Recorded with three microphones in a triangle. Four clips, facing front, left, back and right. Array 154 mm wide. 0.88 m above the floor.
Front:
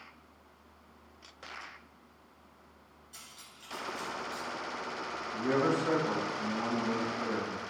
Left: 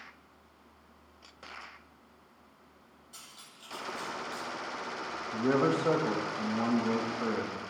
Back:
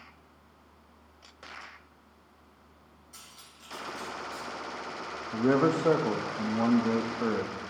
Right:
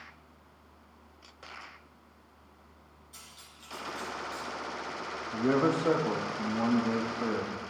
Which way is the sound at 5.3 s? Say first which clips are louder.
Right 1 dB, back 5 dB; 175° right.